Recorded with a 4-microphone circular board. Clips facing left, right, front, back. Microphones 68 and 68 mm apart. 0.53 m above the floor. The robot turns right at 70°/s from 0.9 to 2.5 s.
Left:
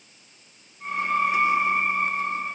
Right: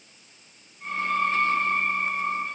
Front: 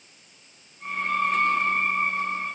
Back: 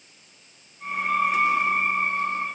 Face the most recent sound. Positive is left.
No sound to turn to.